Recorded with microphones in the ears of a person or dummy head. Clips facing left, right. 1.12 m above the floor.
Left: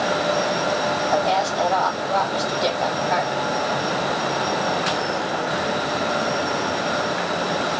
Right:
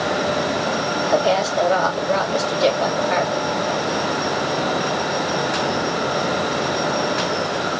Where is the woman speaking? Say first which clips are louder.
Right 5 dB; 85° right, 4.5 m.